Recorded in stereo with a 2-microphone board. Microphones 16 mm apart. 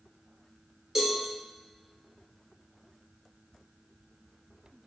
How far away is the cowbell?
About 0.8 m.